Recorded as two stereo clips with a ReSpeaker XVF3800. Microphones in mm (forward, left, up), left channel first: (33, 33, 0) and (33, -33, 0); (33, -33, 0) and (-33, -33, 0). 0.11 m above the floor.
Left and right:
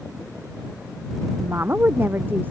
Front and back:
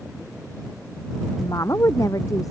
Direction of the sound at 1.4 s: 35° right.